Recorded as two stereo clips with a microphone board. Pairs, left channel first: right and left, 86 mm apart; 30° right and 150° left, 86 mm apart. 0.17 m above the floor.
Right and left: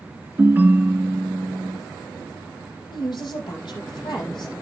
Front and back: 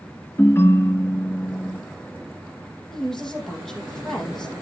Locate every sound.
0.4 s a ringtone: 25° left, 0.9 m
2.9 s a woman speaking: 115° right, 5 m